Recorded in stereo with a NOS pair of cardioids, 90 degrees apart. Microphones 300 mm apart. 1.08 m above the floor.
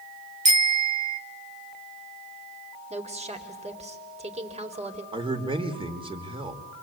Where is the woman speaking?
20° right, 4 m.